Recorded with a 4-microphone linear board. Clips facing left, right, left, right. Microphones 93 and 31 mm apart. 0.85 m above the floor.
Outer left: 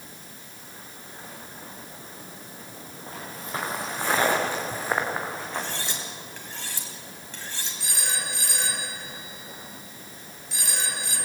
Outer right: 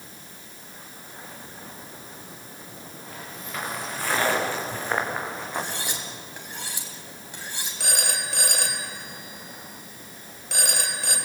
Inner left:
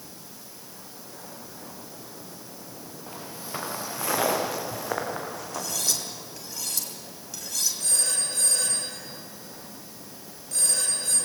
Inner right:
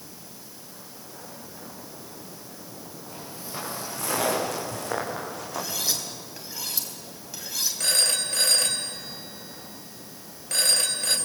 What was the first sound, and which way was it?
Footsteps, 35° left (ahead or behind).